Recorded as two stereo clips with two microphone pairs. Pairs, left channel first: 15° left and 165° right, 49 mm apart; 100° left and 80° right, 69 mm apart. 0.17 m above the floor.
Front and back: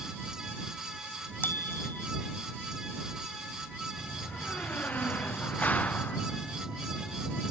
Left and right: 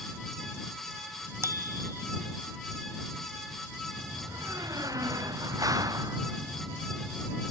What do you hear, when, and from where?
1.4 s a bicycle bell: 30° right
4.0 s a door slam: 45° right